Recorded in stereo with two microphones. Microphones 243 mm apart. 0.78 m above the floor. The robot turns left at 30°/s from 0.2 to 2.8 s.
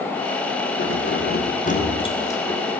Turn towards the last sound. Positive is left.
turn(degrees=0)